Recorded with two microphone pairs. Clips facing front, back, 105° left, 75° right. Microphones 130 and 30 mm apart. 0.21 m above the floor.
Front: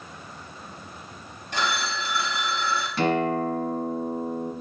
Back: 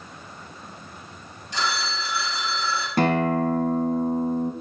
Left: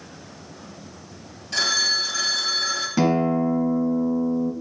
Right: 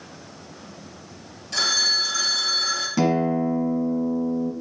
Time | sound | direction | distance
1.5 | a phone ringing | 25° left | 3 m
3.0 | a guitar | straight behind | 1.3 m